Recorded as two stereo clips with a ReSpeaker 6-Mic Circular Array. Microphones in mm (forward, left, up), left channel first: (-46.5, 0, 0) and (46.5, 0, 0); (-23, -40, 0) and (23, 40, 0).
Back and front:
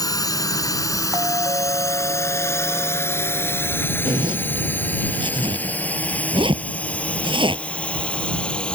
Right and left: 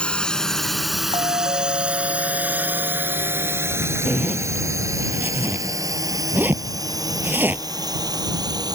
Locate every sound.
0.0 s a drone: 165° left; by 8.7 s 100° left
1.1 s a doorbell: 50° left
4.0 s a zipper: 5° right